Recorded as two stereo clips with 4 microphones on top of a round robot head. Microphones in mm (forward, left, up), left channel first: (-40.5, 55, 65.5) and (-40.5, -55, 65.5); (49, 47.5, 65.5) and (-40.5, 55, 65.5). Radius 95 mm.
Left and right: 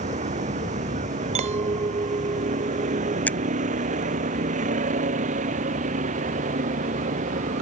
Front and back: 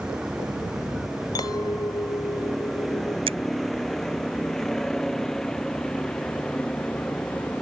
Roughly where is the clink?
Ahead right.